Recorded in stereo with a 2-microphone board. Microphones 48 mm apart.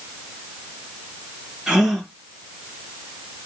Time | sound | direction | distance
1.7 | a gasp | 10° right (ahead or behind) | 2.5 m